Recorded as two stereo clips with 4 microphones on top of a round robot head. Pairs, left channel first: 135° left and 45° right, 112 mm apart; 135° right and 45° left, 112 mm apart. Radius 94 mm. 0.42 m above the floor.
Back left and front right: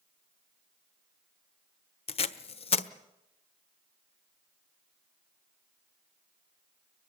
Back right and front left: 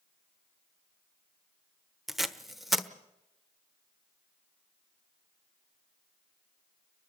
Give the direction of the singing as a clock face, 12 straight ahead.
I don't hear singing.